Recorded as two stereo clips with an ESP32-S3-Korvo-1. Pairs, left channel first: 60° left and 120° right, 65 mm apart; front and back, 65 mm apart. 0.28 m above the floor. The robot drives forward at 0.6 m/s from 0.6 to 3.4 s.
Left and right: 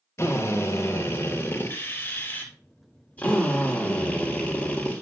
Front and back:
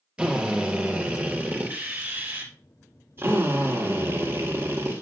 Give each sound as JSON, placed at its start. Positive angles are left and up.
{"t": 0.2, "sound": "a drill", "azimuth_deg": 105, "distance_m": 3.5}